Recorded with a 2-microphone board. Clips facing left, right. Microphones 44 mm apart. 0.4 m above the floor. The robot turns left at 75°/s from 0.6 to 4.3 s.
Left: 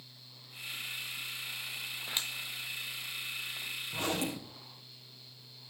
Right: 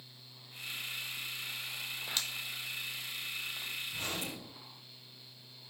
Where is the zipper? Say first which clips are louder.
Left 9 dB; 75° left (ahead or behind), 2.5 m.